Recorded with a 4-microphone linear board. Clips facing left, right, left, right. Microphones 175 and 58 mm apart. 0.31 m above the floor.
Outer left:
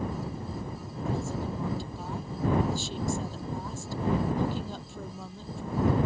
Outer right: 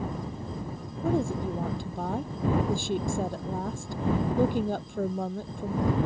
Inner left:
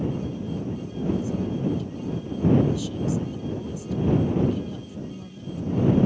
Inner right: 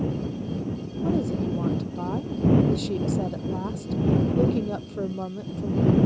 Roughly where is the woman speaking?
Right.